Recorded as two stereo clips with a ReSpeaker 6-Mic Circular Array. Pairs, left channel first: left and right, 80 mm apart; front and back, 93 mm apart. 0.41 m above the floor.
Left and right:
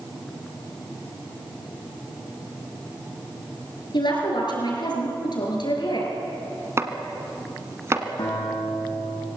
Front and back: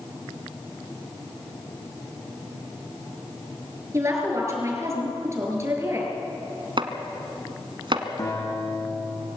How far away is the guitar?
About 8.5 m.